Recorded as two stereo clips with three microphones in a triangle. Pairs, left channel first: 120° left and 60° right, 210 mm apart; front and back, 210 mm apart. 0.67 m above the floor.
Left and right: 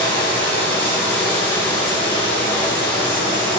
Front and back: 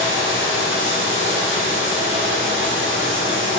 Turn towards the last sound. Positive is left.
turn(degrees=-175)